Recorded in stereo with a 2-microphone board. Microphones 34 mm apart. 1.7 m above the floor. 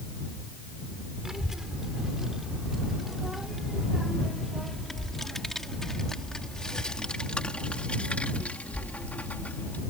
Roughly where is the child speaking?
Centre.